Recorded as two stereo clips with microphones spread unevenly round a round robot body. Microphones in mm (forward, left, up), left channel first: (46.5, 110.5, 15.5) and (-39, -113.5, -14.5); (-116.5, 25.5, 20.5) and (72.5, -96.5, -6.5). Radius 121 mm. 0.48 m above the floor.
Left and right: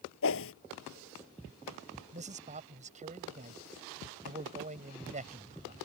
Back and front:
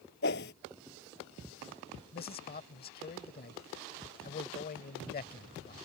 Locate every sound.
0.2 s a whoosh: 100° left
2.1 s a man speaking: 165° right